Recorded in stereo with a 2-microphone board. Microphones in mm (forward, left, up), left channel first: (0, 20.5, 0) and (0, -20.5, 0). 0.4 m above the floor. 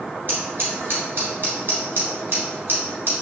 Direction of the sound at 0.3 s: 55° right (ahead or behind).